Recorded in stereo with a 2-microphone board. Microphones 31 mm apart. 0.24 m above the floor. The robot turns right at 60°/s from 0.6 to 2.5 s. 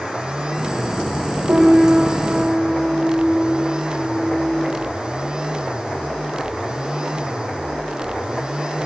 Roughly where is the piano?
Right.